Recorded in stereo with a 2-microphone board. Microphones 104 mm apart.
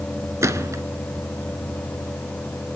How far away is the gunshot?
About 1.4 m.